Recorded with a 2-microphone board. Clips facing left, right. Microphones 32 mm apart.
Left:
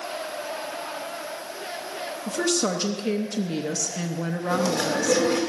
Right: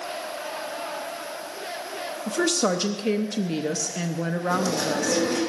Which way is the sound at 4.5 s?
35° left (ahead or behind).